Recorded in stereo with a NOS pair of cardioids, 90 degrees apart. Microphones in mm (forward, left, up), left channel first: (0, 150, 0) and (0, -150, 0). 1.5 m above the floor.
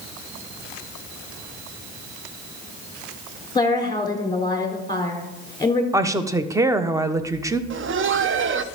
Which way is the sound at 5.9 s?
10° right.